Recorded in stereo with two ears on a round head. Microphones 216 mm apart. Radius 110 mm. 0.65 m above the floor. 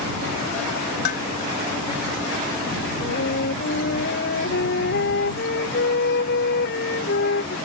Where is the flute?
45° left (ahead or behind).